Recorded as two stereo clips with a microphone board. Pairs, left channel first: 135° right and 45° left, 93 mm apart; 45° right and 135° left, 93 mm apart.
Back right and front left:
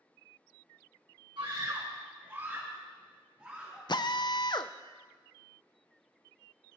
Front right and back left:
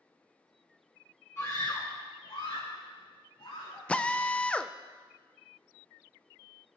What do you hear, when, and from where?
1.4 s a scream: 20° left, 1.0 m; by 3.8 s 35° right, 4 m
3.9 s a drill: 120° right, 0.5 m